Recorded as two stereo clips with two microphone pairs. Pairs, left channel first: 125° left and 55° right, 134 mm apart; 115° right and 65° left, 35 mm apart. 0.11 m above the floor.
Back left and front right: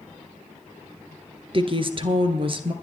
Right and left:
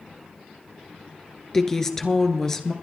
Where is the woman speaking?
50° right, 1.5 m.